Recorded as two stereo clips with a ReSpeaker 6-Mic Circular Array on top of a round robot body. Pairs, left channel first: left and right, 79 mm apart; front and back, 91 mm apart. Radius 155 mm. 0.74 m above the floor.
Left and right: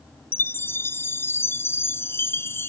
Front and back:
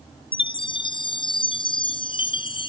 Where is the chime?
30° left.